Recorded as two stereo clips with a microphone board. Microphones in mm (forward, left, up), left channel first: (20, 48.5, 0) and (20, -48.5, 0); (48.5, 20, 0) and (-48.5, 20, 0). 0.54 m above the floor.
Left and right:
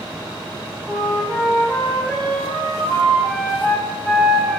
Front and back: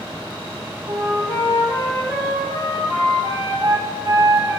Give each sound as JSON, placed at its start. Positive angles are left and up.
{"t": 0.9, "sound": "a flute", "azimuth_deg": 155, "distance_m": 1.9}